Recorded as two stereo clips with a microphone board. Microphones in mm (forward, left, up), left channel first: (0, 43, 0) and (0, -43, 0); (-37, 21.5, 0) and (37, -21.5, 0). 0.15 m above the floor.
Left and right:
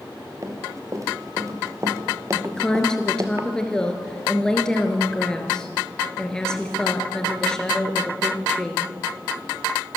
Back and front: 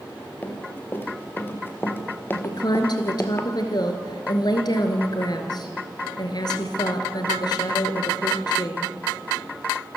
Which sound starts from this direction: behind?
A woman speaking, at 2.4 s.